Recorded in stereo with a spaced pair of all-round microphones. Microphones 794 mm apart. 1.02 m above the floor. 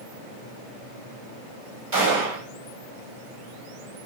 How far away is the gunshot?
About 2.5 m.